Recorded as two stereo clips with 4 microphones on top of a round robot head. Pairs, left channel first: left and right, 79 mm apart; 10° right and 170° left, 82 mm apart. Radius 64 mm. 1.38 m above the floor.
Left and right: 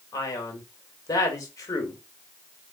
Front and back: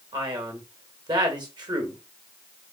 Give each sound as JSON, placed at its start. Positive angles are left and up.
{"t": 0.1, "sound": "a man speaking", "azimuth_deg": 135, "distance_m": 1.8}